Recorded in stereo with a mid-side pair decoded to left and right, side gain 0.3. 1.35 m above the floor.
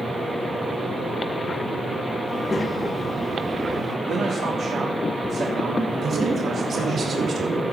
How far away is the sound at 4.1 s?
About 3 m.